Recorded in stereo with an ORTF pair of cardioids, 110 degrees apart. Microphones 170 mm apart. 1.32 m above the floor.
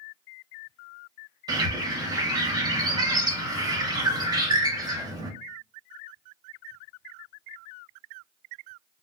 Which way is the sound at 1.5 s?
25° right.